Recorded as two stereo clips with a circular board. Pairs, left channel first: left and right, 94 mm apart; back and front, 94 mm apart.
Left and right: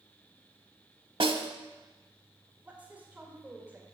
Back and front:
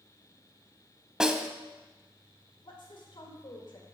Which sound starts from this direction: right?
A snare drum, at 1.2 s.